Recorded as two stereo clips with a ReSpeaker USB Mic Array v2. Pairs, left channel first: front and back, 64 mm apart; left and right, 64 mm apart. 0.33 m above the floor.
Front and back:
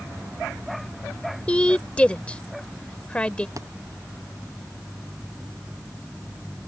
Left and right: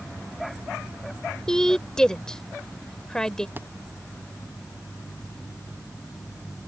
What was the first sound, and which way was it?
A woman speaking, 30° left.